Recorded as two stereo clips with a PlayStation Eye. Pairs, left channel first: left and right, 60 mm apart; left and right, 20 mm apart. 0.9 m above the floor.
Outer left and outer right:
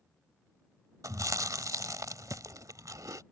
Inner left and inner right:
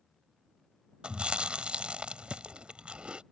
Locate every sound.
1.0 s chewing: 70° right (ahead or behind)